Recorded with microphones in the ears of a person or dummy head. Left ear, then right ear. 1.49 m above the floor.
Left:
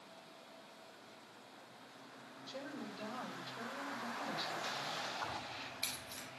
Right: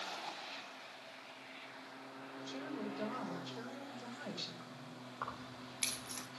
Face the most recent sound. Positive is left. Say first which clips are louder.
# left 3 dB
turn(degrees=-80)